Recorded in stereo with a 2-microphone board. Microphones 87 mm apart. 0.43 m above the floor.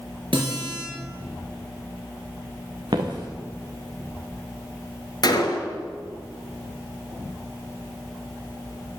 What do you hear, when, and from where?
0.3 s a guitar: 75° right (ahead or behind), 4.5 m
2.9 s footsteps: 65° right (ahead or behind), 1.9 m
5.2 s a gunshot: 55° left (ahead or behind), 1.3 m